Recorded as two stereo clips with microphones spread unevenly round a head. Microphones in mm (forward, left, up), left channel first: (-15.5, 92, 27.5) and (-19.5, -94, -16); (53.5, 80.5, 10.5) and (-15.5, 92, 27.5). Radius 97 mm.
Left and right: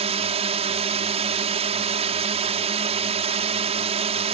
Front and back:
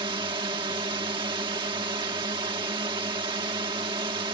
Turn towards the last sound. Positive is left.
turn(degrees=-150)